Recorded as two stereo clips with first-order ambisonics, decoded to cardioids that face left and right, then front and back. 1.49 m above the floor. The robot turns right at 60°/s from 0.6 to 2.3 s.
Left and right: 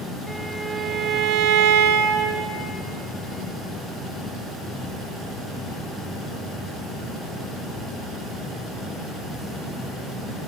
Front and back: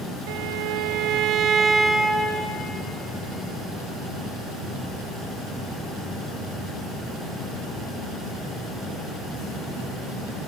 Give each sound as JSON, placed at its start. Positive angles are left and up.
{"t": 0.3, "sound": "a violin", "azimuth_deg": -175, "distance_m": 0.7}